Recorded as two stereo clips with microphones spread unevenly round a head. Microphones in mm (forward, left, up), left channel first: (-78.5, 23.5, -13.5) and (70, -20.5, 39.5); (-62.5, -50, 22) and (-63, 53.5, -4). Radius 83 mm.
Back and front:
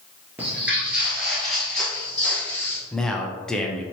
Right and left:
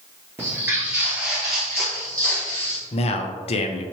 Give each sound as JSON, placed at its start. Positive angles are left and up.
{"t": 0.4, "sound": "footsteps", "azimuth_deg": 10, "distance_m": 1.5}
{"t": 2.9, "sound": "a man speaking", "azimuth_deg": -105, "distance_m": 0.5}